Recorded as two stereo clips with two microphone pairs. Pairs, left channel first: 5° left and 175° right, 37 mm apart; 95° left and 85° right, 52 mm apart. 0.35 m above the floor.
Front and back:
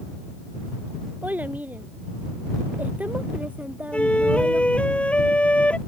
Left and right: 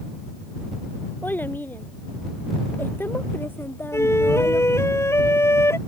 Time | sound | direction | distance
1.2 | a child speaking | 150° left | ?
3.9 | a flute | 60° left | ?